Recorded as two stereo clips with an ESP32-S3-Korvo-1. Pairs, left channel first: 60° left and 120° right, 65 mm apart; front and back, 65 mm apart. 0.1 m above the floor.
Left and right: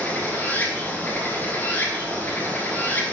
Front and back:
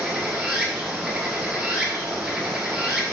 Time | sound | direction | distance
0.0 | running water | 105° left | 1.6 m